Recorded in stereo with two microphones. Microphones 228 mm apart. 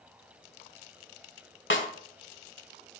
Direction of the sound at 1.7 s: 60° left (ahead or behind).